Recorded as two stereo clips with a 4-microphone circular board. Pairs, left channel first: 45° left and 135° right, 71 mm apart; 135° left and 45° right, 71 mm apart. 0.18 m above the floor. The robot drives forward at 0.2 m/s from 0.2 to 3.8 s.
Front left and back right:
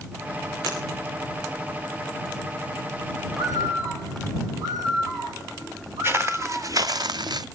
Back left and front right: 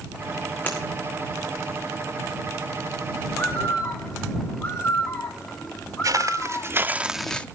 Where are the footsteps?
80° right, 1.1 m; by 7.5 s 155° right, 0.6 m.